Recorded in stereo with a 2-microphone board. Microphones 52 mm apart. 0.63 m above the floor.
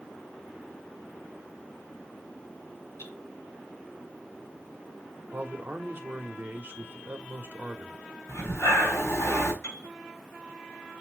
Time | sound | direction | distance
3.0 | cutlery clinking | 70° left (ahead or behind) | 5.5 m
5.3 | a man speaking | 45° right (ahead or behind) | 1.2 m
8.3 | breathing | 80° left | 3.5 m
9.6 | a piano | 75° left (ahead or behind) | 6 m